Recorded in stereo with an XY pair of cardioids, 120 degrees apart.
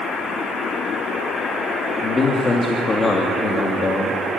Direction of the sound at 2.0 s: 25° left.